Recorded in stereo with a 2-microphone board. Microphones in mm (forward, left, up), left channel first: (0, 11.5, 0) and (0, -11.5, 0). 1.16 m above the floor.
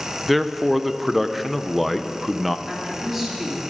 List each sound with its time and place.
0.3 s a man speaking: centre (ahead or behind), 0.5 m
2.7 s a woman speaking: 15° right (ahead or behind), 2.5 m